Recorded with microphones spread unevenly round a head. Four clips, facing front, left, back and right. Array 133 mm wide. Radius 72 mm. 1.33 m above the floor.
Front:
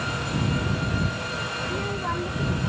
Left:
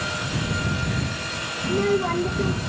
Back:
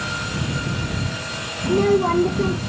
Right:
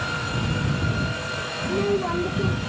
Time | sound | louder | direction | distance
1.6 | a child speaking | left 2 dB, back 15 dB | 175° left | ?